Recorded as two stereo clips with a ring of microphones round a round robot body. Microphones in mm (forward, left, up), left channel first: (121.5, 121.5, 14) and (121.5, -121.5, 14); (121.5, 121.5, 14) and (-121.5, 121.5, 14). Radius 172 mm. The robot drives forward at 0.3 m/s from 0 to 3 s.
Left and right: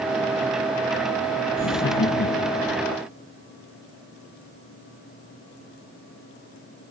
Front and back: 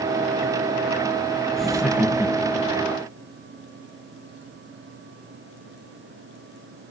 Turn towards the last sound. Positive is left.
turn(degrees=115)